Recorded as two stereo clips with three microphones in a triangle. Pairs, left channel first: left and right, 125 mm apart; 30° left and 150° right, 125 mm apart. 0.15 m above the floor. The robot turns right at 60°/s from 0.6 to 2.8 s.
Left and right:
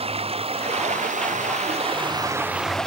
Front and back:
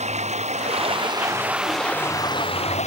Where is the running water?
125° right; by 2.9 s 5° left.